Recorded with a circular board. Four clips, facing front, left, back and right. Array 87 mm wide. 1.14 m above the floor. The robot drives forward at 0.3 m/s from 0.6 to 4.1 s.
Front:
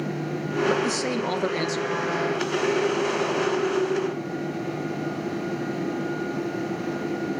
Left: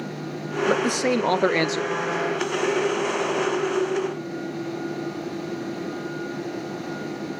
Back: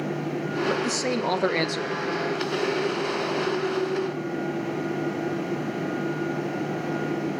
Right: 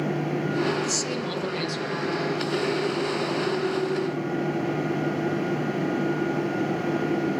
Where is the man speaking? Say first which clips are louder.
Left 5 dB, front 2 dB; 85° left, 0.6 m; by 1.9 s 120° left, 0.6 m.